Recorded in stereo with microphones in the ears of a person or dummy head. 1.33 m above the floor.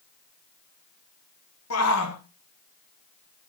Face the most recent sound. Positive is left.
turn(degrees=75)  # may be behind; listen again after turning